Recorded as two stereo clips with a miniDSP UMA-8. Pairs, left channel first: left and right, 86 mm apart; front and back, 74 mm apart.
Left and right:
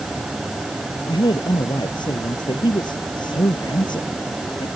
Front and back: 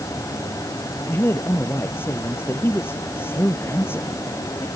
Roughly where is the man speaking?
Ahead left.